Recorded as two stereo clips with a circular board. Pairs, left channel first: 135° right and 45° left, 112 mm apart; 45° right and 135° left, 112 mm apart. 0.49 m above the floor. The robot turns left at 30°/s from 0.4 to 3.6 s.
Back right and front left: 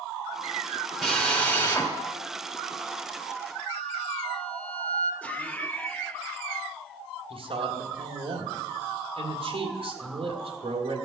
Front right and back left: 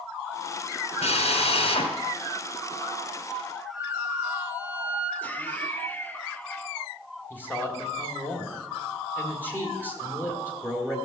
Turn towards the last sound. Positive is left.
turn(degrees=25)